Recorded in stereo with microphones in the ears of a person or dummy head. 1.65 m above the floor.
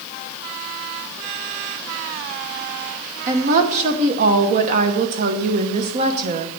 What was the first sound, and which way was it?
A woman speaking, 45° right (ahead or behind).